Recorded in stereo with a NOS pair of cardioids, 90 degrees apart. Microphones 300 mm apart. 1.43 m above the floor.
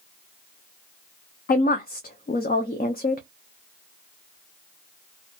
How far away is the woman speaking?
About 0.5 m.